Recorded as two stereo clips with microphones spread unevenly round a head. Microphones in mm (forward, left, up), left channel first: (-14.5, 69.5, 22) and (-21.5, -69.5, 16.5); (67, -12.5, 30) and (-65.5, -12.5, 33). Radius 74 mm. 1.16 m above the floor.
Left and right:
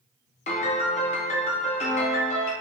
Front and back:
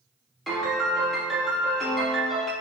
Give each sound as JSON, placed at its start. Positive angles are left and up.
{"t": 0.5, "sound": "a piano", "azimuth_deg": 90, "distance_m": 0.7}